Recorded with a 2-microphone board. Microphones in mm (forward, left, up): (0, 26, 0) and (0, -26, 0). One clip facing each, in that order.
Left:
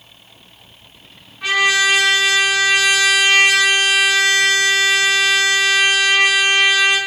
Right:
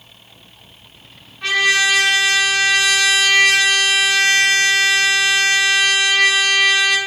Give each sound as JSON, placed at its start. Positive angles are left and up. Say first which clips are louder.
{"t": 1.4, "sound": "a trumpet", "louder": "even", "side_deg": 10, "distance_m": 1.0}